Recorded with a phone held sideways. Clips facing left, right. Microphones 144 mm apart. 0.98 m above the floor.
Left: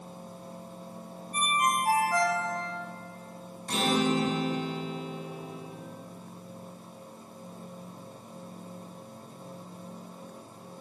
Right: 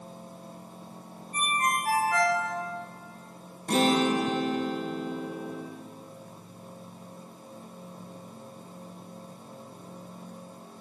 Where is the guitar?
55° right (ahead or behind), 2.5 m.